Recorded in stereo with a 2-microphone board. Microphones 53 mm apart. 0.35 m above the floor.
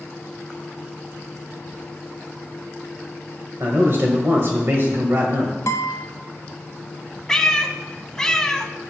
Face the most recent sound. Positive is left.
turn(degrees=10)  # may be behind; listen again after turning